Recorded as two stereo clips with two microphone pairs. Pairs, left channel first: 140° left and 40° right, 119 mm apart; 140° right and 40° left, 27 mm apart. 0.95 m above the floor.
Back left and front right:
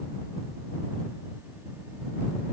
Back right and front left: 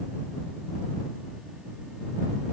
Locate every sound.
Only background noise.